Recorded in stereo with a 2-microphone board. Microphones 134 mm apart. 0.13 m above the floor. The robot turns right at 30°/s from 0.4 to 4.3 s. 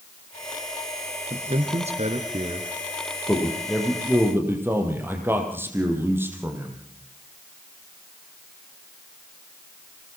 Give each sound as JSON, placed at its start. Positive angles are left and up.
{"t": 1.3, "sound": "a man speaking", "side_deg": -55, "distance_m": 2.5}
{"t": 3.3, "sound": "a man speaking", "azimuth_deg": 165, "distance_m": 5.0}